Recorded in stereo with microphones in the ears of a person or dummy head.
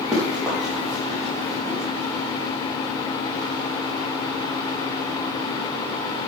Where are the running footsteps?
Centre (ahead or behind), 3.5 m.